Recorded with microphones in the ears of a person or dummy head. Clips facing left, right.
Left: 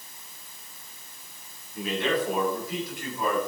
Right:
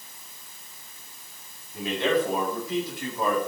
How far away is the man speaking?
About 8.5 m.